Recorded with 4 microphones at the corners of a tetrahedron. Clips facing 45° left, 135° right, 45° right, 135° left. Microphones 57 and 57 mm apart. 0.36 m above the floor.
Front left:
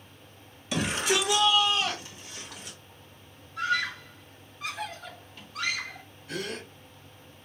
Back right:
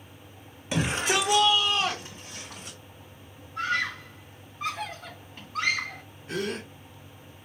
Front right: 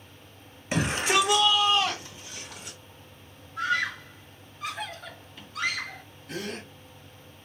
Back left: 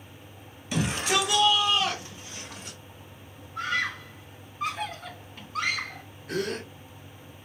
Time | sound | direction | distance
0.7 | a shout | 85° right | 1.4 m
3.6 | a scream | 175° left | 3 m
6.3 | a gasp | 170° left | 2 m